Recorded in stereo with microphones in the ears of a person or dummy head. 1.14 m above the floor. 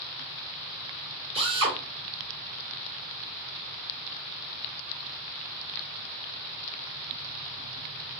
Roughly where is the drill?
Right.